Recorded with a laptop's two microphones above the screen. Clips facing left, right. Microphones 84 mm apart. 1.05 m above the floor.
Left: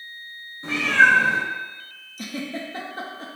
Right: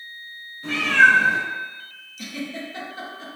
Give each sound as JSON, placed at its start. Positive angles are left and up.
{"t": 0.6, "sound": "a cat meowing", "side_deg": 30, "distance_m": 1.1}
{"t": 2.2, "sound": "a giggle", "side_deg": 35, "distance_m": 0.6}